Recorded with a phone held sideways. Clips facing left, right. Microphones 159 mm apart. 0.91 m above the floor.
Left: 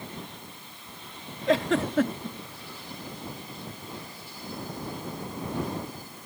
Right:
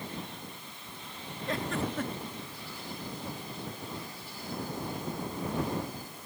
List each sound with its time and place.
1.5 s a giggle: 85° left